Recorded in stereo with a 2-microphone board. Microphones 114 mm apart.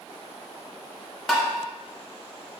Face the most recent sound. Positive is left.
turn(degrees=5)  # may be behind; listen again after turning